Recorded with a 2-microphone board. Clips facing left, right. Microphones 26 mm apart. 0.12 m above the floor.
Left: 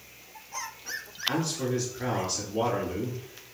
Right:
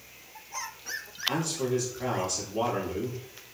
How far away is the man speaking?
About 2 m.